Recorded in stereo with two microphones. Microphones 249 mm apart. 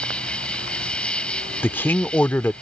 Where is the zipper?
No zipper in this recording.